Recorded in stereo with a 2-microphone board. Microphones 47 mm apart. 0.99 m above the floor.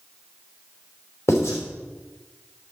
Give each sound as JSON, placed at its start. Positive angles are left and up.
{"t": 1.3, "sound": "writing", "side_deg": 75, "distance_m": 5.0}